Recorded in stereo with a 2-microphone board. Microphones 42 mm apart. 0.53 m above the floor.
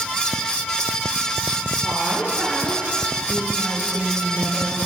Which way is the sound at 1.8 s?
20° right (ahead or behind).